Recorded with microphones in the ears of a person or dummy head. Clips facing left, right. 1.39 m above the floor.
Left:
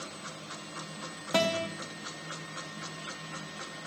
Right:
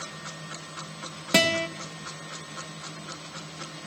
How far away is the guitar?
About 1.2 m.